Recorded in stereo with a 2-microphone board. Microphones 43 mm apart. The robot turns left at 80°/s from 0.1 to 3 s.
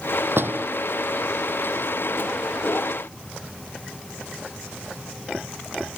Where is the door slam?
60° right (ahead or behind); by 0.7 s 35° right (ahead or behind).